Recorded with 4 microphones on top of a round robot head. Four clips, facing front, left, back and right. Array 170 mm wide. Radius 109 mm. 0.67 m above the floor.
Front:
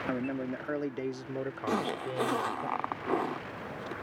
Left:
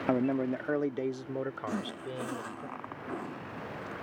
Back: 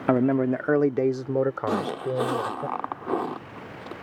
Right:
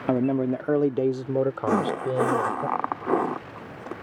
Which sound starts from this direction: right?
A zipper, at 1.7 s.